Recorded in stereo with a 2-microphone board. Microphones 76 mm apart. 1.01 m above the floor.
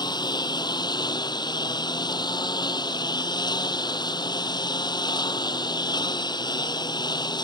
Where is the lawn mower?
70° left (ahead or behind).